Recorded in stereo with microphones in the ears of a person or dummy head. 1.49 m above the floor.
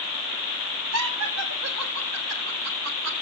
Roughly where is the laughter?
Right.